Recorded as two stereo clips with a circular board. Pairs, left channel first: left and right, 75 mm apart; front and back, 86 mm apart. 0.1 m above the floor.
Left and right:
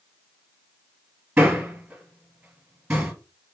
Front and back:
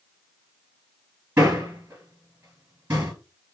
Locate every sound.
1.4 s a man speaking: 135° right, 1.4 m